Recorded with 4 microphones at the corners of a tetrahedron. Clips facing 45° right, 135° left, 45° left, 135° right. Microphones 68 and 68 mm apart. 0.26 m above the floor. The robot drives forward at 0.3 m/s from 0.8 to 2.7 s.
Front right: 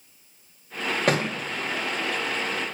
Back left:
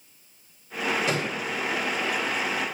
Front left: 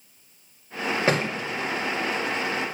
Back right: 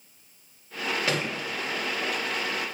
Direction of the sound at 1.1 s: 15° right.